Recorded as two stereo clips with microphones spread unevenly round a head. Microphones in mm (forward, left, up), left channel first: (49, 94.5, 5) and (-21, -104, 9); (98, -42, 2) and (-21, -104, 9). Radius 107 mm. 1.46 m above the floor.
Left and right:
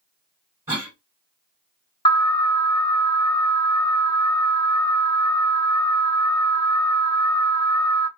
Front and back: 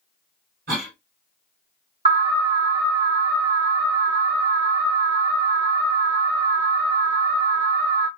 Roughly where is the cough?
Behind.